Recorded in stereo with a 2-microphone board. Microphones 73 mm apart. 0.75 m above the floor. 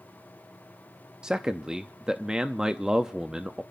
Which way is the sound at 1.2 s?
10° right (ahead or behind).